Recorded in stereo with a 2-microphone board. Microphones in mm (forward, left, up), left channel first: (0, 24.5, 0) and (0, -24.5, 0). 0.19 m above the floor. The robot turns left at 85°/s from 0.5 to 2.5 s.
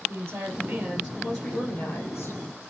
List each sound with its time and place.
0.1 s a woman speaking: 115° right, 6 m; by 2.6 s 75° left, 6 m